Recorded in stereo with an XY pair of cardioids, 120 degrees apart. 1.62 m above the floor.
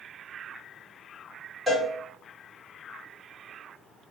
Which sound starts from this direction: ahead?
A cowbell, at 1.7 s.